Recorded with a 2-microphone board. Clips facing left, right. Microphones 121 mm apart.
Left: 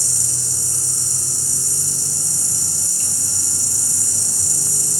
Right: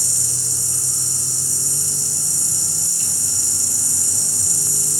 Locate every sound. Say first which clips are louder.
0.0 s an insect: left 1 dB; 40° left (ahead or behind), 8.5 m